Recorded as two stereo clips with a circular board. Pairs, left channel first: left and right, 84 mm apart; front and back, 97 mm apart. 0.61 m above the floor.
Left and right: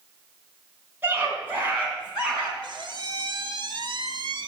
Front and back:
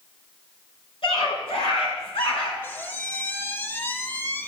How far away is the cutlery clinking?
No cutlery clinking in this recording.